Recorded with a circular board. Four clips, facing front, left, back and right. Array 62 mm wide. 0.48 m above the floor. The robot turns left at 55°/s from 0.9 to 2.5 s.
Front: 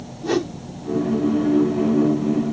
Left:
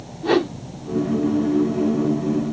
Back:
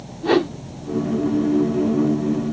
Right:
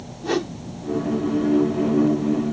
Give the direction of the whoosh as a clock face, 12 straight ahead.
7 o'clock.